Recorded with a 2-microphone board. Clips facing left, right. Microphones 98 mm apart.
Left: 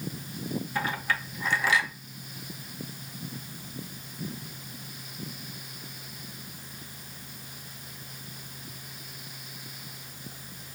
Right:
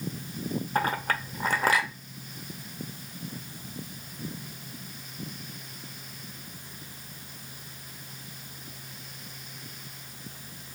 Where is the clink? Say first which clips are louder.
Right 4 dB; 45° right (ahead or behind), 0.6 m.